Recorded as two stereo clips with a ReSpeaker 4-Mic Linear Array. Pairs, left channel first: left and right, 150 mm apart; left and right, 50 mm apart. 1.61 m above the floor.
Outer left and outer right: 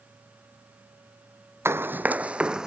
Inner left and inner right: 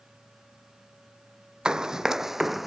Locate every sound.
1.6 s running footsteps: 15° right (ahead or behind); by 2.7 s 5° right (ahead or behind)